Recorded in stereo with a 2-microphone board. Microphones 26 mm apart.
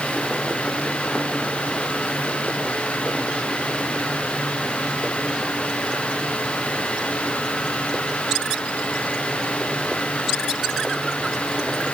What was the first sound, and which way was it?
Only background noise.